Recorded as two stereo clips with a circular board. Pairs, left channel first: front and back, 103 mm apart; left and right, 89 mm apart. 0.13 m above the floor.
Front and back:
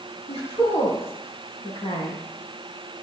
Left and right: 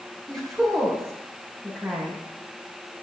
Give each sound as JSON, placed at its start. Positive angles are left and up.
{"t": 0.3, "sound": "a woman speaking", "azimuth_deg": 5, "distance_m": 6.5}